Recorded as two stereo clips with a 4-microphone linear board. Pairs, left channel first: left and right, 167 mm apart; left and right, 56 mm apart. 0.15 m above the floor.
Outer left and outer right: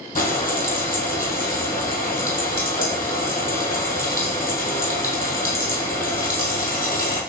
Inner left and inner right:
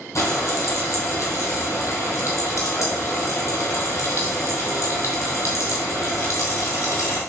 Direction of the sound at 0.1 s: 55° left (ahead or behind).